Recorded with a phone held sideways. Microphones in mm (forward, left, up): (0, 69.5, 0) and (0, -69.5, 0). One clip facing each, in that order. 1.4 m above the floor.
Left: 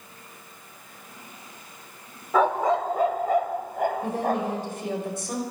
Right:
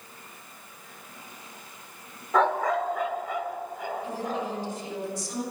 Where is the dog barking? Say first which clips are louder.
Left 2 dB; 5° left (ahead or behind), 1.3 m; by 4.6 s 60° left (ahead or behind), 4 m.